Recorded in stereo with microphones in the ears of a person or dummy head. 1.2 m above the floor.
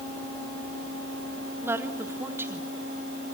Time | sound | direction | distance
1.6 | a woman speaking | 15° right (ahead or behind) | 3 m